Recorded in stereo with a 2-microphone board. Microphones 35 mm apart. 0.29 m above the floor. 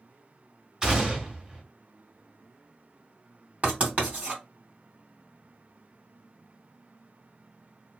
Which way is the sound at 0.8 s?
20° right (ahead or behind).